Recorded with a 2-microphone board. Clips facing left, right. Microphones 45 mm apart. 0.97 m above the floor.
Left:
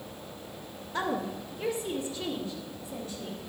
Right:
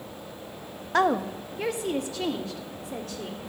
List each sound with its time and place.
0.9 s a woman speaking: 70° right (ahead or behind), 0.8 m; by 3.5 s 80° right, 2.5 m